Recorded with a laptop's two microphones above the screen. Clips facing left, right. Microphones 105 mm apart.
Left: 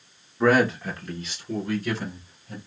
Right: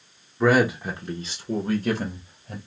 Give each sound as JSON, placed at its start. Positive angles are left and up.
{"t": 0.4, "sound": "a man speaking", "side_deg": 0, "distance_m": 0.7}